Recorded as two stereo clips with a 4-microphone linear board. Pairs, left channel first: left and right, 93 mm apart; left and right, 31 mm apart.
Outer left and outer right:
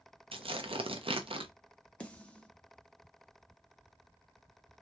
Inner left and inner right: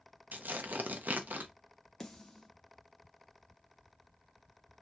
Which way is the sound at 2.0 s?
15° left (ahead or behind).